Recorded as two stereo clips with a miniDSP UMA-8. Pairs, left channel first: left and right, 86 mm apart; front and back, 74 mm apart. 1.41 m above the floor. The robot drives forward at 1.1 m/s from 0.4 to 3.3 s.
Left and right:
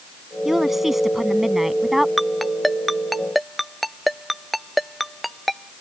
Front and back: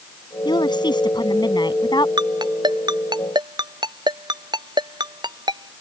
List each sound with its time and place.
0.5 s a woman speaking: 5° right
2.2 s a ringtone: straight behind